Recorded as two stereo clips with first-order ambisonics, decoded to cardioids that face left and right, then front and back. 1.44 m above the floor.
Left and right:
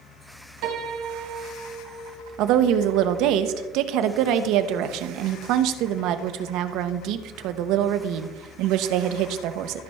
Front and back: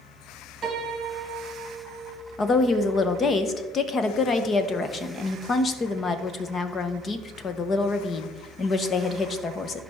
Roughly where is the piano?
Right.